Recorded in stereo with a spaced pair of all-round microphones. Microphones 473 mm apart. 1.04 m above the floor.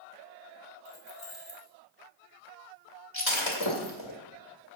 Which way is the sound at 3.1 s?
75° left (ahead or behind).